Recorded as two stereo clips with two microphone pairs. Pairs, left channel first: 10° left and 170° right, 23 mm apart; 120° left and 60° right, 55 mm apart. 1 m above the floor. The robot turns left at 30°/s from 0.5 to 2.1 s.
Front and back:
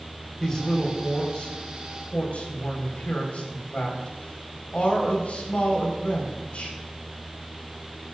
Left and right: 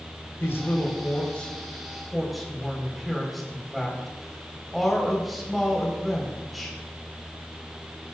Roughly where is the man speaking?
Left.